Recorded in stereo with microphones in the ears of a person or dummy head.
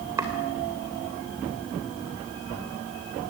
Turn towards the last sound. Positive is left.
turn(degrees=-15)  # may be behind; listen again after turning